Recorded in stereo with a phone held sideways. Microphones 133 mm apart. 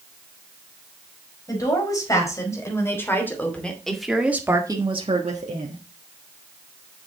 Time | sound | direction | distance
1.5 | a woman speaking | 30° left (ahead or behind) | 5 m